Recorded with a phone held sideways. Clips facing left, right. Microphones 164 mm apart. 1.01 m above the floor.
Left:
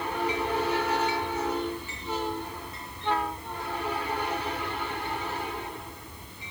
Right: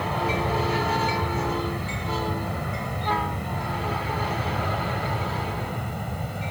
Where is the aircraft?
70° right (ahead or behind).